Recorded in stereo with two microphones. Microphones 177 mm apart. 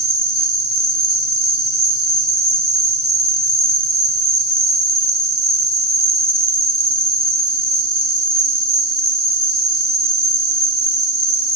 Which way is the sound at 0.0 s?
60° right (ahead or behind).